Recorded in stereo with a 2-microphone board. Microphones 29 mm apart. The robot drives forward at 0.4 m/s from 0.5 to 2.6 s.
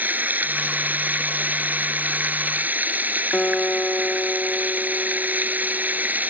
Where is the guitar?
55° left (ahead or behind).